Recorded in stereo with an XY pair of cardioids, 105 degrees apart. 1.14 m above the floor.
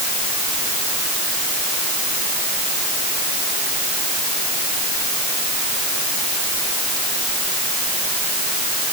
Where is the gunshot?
I don't hear a gunshot.